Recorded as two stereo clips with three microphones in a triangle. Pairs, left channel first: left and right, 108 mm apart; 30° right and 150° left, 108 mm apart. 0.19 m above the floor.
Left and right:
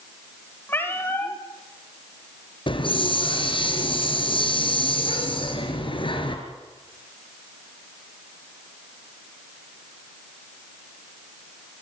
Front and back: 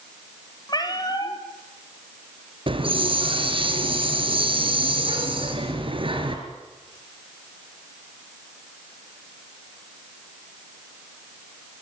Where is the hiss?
120° left, 4 m.